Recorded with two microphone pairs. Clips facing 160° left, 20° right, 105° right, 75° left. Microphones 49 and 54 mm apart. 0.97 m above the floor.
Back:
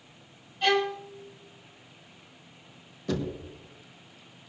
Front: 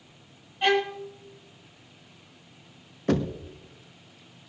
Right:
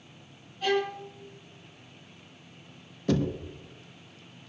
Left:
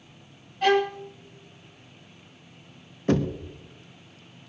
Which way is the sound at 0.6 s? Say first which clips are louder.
Front 1 dB, left 6 dB; 45° left.